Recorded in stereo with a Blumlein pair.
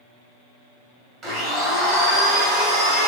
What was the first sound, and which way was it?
A blender, 30° right.